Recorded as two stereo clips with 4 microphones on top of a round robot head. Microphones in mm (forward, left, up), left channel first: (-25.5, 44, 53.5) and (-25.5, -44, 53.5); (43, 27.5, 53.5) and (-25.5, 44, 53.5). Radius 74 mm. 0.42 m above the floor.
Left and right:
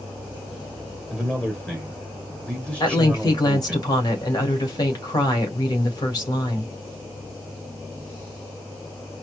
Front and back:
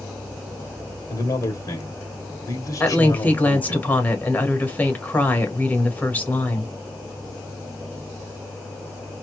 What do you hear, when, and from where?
1.1 s a man speaking: 15° left, 2.5 m
2.8 s a woman speaking: 50° left, 1.9 m